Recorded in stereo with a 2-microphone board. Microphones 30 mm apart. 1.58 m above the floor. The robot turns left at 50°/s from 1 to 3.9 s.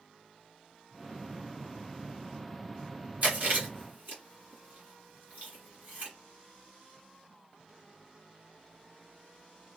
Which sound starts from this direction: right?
Chewing, at 3.2 s.